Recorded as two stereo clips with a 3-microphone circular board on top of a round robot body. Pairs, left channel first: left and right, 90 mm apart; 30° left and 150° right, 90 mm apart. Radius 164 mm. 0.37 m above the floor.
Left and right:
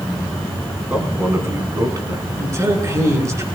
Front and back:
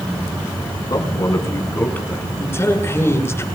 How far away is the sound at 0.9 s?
About 4.5 m.